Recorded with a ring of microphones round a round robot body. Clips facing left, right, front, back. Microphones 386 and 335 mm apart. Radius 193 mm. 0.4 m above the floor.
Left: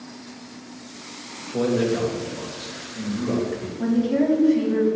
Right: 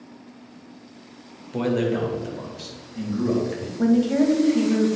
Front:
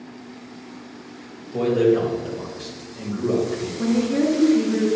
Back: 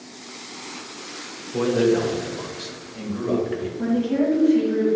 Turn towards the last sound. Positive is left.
turn(degrees=-95)